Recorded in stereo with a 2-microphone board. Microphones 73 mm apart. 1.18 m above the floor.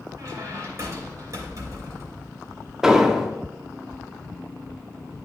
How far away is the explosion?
About 0.6 m.